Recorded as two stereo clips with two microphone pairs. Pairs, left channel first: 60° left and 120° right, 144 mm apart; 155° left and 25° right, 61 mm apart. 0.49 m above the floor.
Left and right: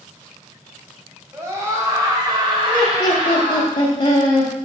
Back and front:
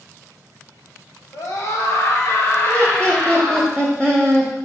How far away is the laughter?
About 1.6 m.